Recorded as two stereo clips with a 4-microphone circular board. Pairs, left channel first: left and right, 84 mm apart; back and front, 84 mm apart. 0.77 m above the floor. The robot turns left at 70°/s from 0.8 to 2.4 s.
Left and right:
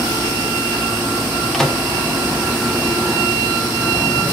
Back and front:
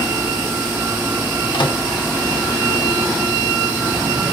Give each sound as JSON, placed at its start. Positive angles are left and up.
{"t": 1.5, "sound": "a microwave", "azimuth_deg": 180, "distance_m": 1.1}